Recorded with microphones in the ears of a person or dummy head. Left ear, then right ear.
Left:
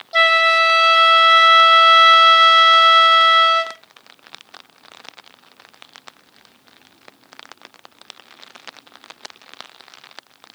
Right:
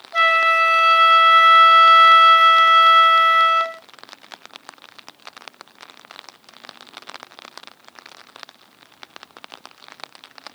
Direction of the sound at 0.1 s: 40° left (ahead or behind).